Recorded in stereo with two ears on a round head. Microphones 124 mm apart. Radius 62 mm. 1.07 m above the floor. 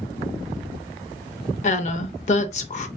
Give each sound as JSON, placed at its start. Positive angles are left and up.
{"t": 1.6, "sound": "a woman speaking", "side_deg": 55, "distance_m": 0.8}